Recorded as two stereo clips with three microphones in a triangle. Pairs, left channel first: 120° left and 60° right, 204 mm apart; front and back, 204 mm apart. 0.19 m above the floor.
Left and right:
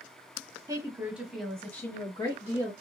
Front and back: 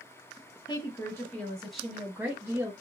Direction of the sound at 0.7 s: 25° right.